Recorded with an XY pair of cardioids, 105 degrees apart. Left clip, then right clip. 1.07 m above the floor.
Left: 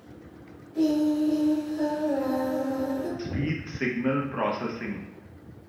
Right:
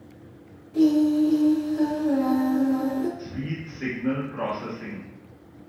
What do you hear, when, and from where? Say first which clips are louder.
0.7 s singing: right 4 dB; 65° right, 1.2 m
3.2 s a man speaking: left 3 dB; 55° left, 0.7 m